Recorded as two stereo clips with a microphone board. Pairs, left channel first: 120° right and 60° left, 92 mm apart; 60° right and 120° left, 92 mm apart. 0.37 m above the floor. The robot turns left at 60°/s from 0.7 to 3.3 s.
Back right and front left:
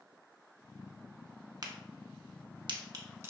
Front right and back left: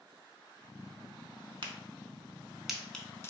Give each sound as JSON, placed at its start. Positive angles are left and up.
{"t": 1.6, "sound": "a crack", "azimuth_deg": 100, "distance_m": 0.6}